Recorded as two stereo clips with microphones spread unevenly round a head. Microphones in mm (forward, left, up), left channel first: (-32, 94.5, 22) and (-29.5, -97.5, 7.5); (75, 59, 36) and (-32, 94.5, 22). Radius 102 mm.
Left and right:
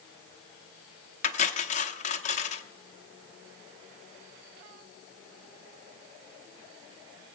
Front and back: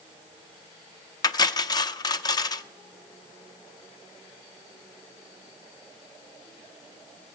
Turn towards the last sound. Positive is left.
turn(degrees=35)